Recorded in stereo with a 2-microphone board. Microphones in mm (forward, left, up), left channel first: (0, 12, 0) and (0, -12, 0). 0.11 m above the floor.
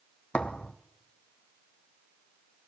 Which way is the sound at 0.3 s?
65° left (ahead or behind).